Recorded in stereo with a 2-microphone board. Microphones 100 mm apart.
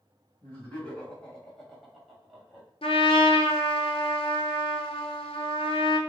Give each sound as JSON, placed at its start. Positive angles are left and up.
{"t": 0.4, "sound": "laughter", "side_deg": 20, "distance_m": 1.9}
{"t": 2.8, "sound": "a trumpet", "side_deg": 70, "distance_m": 0.8}